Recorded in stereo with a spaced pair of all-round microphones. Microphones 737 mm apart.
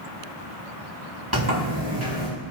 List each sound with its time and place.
1.3 s a sliding door: 20° right (ahead or behind), 4 m